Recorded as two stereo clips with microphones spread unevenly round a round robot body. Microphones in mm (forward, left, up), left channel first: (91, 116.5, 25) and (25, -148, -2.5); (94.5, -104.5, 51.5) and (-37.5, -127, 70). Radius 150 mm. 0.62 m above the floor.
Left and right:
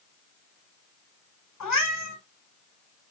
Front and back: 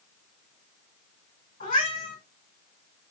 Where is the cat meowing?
55° left, 1.4 m.